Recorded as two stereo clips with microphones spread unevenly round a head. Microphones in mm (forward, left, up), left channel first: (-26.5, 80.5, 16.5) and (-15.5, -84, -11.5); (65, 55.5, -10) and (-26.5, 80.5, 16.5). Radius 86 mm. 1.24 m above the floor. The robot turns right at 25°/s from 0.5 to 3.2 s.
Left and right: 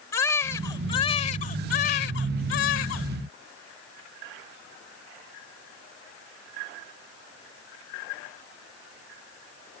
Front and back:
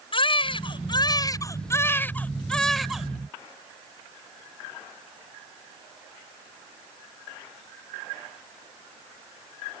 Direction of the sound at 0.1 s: 20° left.